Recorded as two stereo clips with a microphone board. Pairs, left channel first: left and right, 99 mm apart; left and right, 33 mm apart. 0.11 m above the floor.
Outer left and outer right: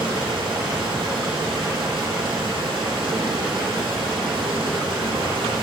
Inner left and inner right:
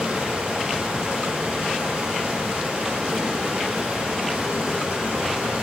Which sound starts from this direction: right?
Running water, at 0.0 s.